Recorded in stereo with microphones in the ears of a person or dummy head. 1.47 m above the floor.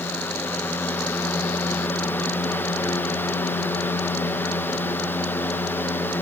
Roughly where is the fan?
Centre.